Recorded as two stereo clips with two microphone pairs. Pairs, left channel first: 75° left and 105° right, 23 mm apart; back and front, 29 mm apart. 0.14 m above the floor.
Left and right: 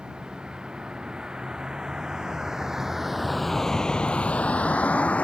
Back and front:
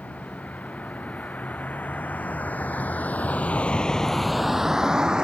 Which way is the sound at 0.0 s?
155° right.